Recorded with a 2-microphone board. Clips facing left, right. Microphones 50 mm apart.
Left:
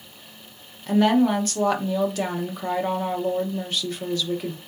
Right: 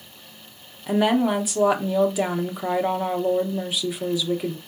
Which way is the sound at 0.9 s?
10° right (ahead or behind).